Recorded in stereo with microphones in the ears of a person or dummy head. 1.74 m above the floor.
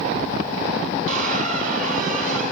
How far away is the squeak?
About 5 m.